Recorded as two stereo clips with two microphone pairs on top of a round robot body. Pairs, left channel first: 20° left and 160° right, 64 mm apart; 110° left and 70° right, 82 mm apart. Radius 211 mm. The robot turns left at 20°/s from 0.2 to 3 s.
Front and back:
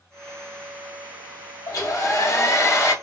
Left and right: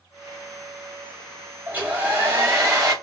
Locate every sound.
1.7 s a hair dryer: 5° right, 2.5 m; by 2.9 s 30° right, 2.5 m